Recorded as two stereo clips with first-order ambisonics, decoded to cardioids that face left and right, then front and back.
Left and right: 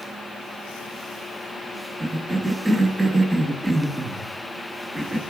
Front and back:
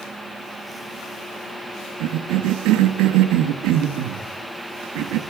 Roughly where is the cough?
Behind.